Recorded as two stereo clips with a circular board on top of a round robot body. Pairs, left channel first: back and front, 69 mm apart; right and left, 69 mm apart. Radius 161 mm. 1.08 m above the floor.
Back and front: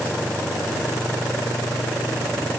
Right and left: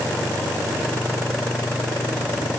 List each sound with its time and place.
Only background noise.